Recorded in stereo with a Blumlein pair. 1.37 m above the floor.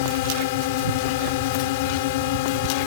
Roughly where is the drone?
Ahead left.